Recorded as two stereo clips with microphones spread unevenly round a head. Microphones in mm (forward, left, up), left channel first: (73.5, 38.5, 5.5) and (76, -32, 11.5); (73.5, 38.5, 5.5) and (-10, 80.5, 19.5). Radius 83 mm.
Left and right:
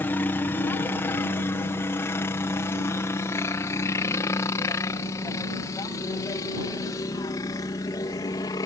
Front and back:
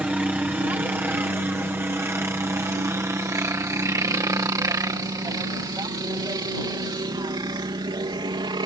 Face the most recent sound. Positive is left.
turn(degrees=125)